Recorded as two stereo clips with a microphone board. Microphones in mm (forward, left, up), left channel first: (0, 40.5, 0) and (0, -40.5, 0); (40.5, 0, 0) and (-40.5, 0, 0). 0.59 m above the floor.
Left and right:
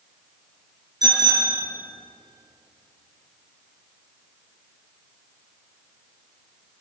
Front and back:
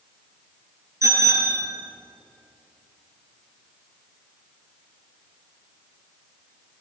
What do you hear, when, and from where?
1.0 s a bicycle bell: 125° right, 7 m